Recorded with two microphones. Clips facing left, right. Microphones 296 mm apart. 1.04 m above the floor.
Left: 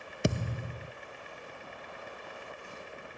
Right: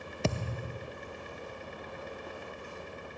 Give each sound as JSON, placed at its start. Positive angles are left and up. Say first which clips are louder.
{"t": 0.2, "sound": "a thud", "louder": "left 2 dB", "side_deg": 15}